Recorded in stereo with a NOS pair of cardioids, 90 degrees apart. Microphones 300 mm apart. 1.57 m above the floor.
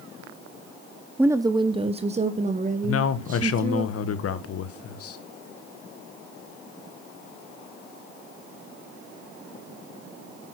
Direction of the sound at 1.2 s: 5° right.